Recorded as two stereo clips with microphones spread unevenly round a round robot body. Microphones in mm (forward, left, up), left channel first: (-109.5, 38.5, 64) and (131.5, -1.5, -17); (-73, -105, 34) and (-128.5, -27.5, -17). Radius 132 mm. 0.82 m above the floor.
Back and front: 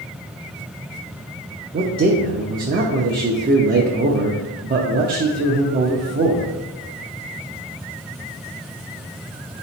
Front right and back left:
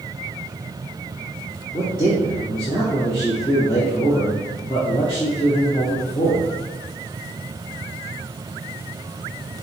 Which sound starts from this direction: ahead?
A man speaking, at 1.7 s.